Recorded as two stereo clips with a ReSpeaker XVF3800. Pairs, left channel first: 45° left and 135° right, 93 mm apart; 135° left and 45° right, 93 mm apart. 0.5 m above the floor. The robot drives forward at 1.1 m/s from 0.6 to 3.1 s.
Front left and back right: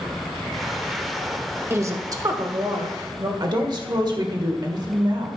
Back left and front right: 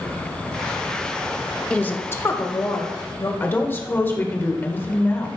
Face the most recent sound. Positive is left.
turn(degrees=-160)